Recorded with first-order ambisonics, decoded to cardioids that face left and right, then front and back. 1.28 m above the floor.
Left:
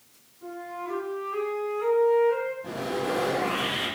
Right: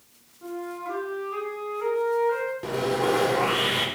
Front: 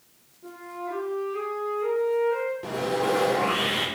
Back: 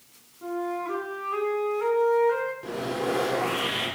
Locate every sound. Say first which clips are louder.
0.4 s a flute: right 2 dB, back 6 dB; 170° right, 5 m
2.6 s sawing: right 5 dB, front 3 dB; 75° right, 4.5 m